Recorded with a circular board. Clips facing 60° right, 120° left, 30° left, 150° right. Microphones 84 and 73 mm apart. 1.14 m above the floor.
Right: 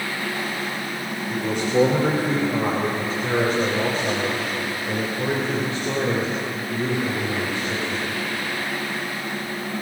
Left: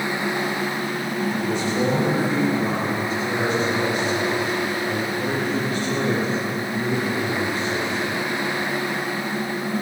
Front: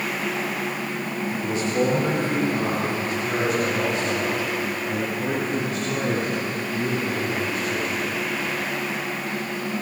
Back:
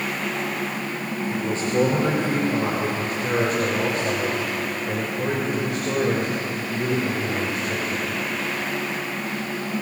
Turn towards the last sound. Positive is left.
turn(degrees=-130)